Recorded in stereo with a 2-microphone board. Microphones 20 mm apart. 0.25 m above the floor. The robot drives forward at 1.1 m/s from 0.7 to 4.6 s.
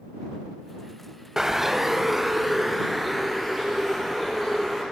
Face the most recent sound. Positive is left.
turn(degrees=-5)  # may be behind; listen again after turning